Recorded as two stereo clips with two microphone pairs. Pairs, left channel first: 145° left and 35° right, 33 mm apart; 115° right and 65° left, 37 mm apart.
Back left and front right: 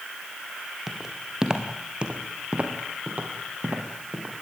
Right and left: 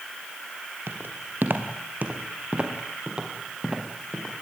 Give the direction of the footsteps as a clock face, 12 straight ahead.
11 o'clock.